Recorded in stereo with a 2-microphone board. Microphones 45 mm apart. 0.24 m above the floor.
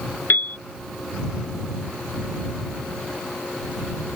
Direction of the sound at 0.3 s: 45° left (ahead or behind).